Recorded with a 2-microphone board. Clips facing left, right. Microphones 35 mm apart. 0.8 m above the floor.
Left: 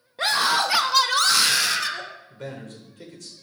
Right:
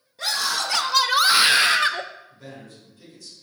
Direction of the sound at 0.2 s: 40° left (ahead or behind).